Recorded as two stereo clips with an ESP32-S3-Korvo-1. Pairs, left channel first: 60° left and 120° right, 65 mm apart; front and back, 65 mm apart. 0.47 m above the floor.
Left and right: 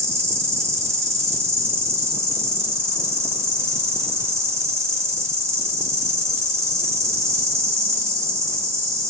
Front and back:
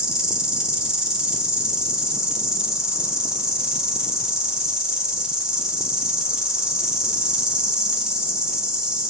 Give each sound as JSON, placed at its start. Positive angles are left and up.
{"t": 0.0, "sound": "an insect", "azimuth_deg": -105, "distance_m": 0.9}